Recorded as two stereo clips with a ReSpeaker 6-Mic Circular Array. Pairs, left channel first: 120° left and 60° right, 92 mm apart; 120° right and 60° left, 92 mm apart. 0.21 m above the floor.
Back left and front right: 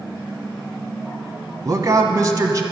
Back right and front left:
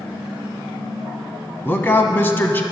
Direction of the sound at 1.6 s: 70° right.